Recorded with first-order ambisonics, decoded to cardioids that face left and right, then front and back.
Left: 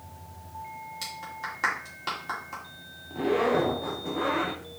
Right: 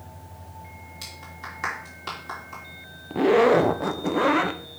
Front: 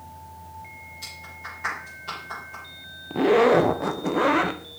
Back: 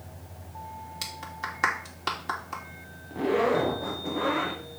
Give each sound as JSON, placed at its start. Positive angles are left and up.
{"t": 1.0, "sound": "a clap", "azimuth_deg": 175, "distance_m": 3.5}
{"t": 3.1, "sound": "a zipper", "azimuth_deg": -50, "distance_m": 0.7}